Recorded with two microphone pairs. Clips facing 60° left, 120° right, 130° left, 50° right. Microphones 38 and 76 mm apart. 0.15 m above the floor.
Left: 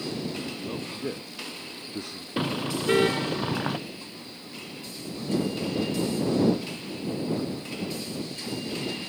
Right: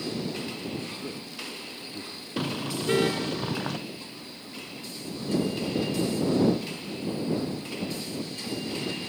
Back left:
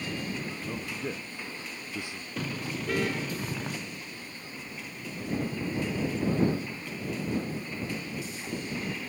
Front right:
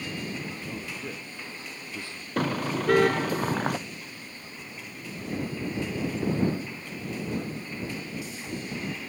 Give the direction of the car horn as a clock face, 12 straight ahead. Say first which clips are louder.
Left 2 dB, front right 8 dB; 12 o'clock.